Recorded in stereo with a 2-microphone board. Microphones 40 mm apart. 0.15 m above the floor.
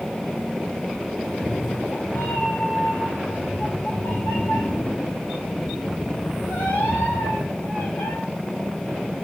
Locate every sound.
1.2 s a cat meowing: 65° left (ahead or behind), 3 m; by 8.1 s 85° left, 8.5 m